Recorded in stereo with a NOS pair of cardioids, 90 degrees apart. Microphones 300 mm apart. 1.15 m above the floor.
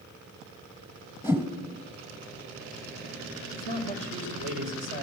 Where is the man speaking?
45° right, 5 m.